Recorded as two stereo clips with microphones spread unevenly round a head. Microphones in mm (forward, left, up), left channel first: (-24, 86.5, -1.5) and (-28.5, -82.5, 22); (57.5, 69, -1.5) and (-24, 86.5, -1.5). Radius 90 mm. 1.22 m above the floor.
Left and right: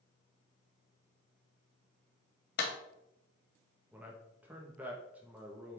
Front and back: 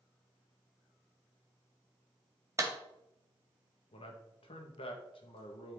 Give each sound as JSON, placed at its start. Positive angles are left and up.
{"t": 2.6, "sound": "a clap", "azimuth_deg": 115, "distance_m": 1.9}
{"t": 3.9, "sound": "a man speaking", "azimuth_deg": -10, "distance_m": 1.5}